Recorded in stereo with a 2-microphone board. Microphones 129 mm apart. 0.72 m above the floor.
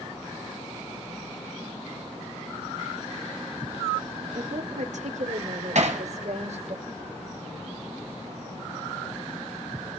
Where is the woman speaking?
70° right (ahead or behind), 1.3 m; by 6.8 s 60° right (ahead or behind), 2.5 m.